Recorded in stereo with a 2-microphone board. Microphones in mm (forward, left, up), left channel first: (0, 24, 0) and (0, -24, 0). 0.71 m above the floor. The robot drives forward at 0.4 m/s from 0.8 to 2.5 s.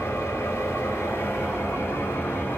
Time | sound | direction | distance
0.0 | an engine running | 75° left (ahead or behind) | 1.5 m